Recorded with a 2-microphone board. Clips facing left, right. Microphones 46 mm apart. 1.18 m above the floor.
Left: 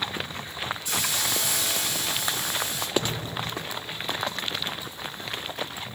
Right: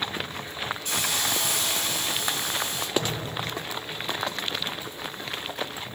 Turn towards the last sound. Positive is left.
turn(degrees=-85)